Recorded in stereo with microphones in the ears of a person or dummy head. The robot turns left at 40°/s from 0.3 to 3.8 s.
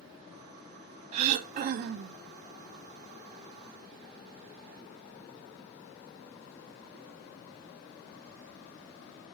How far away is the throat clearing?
About 0.9 m.